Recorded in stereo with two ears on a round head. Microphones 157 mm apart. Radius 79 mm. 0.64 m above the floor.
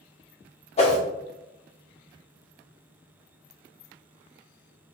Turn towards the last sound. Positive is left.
turn(degrees=35)  # may be behind; listen again after turning